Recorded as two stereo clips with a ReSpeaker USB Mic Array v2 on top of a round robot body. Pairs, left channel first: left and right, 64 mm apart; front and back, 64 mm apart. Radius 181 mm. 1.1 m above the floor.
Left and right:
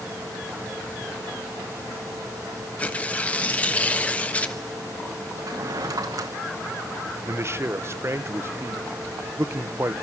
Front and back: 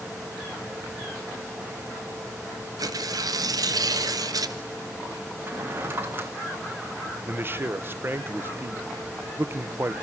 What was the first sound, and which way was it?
Tearing paper, 160° left.